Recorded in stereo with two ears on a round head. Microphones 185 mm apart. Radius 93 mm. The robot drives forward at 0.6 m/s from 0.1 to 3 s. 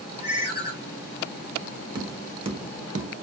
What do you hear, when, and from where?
0.2 s a ringtone: 15° right (ahead or behind), 2.5 m; by 0.7 s 10° right (ahead or behind), 2.5 m
1.9 s tapping: 20° right (ahead or behind), 0.9 m; by 3.1 s 40° right (ahead or behind), 0.5 m